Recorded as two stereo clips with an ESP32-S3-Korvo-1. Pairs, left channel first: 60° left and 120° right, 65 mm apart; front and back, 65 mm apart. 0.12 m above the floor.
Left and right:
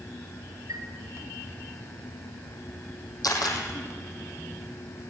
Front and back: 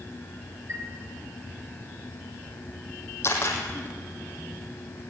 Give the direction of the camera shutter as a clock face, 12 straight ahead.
10 o'clock.